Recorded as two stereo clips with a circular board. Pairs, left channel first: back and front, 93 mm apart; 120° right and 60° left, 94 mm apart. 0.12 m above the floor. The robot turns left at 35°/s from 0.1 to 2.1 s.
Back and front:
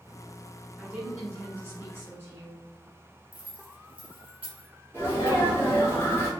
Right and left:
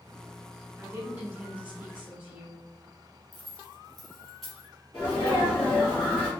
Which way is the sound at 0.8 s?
45° left.